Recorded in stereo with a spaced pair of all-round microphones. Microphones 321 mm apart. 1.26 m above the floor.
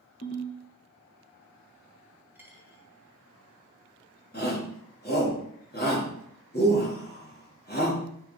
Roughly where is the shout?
Left.